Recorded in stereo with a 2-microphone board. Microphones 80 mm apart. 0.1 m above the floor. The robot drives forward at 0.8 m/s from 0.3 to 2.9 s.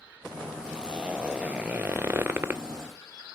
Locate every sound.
0.7 s a zipper: 10° right (ahead or behind), 1.3 m; by 2.6 s 20° right (ahead or behind), 0.6 m